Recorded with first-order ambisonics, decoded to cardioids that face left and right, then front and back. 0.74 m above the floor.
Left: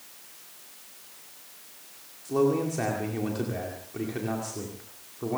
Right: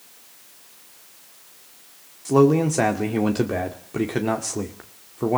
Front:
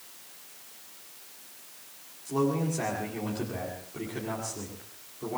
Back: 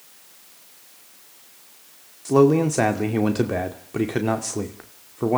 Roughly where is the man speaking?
Behind right.